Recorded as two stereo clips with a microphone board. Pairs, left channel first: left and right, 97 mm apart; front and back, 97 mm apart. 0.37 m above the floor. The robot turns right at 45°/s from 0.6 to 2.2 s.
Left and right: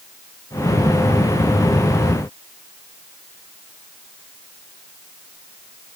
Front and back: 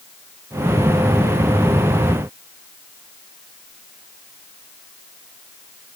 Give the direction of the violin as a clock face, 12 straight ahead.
I don't hear a violin.